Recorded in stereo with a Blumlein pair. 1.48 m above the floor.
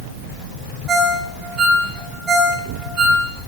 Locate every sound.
0.9 s a ringtone: 15° right, 1.6 m